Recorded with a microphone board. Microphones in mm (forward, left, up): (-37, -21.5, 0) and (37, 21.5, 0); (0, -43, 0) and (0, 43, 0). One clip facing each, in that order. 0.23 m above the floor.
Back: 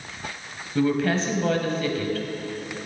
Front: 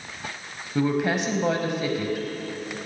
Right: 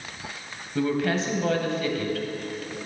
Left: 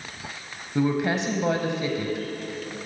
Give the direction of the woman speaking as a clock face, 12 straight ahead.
10 o'clock.